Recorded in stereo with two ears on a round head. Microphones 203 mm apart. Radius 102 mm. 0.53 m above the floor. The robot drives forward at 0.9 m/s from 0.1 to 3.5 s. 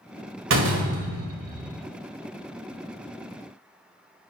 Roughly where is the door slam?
Right.